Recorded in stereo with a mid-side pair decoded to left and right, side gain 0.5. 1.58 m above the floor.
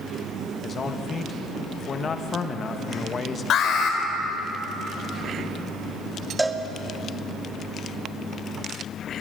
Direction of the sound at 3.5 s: 60° left.